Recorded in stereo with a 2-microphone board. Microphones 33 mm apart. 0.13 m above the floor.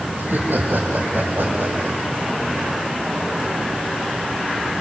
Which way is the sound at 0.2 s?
75° right (ahead or behind).